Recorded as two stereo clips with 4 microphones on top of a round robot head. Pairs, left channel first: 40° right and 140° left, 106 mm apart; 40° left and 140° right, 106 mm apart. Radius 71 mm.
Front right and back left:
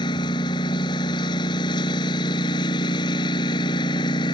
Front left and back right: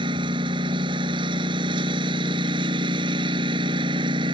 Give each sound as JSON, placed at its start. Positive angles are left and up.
{"t": 0.0, "sound": "a lawn mower", "azimuth_deg": -95}